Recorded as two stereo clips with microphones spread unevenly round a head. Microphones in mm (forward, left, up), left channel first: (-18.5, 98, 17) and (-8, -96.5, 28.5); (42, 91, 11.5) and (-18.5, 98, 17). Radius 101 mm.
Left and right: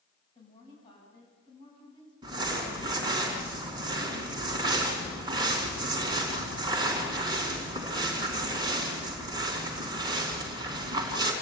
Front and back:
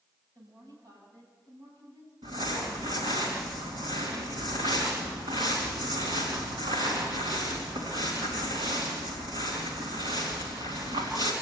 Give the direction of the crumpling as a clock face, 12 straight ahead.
5 o'clock.